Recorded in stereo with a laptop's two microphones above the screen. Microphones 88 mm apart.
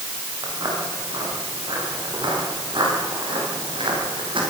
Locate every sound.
0.4 s footsteps: 50° right (ahead or behind), 9 m; by 4.4 s 75° right (ahead or behind), 11.5 m